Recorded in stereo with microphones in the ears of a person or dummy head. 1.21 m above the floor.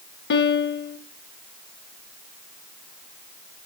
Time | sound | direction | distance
0.3 | a piano | 60° left (ahead or behind) | 0.8 m